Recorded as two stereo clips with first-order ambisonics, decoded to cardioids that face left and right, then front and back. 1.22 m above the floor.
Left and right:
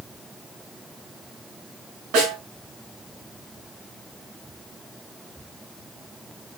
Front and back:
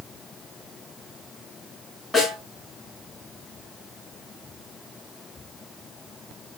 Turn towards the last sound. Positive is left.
turn(degrees=-90)